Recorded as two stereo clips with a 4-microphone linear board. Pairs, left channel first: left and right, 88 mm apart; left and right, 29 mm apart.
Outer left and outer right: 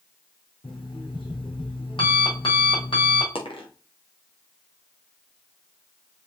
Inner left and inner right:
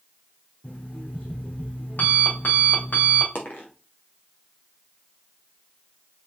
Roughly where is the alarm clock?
Left.